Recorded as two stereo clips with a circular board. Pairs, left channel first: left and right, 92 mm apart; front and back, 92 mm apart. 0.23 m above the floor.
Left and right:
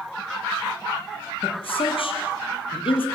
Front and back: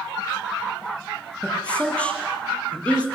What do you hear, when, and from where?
1.4 s a man speaking: 75° left, 6.5 m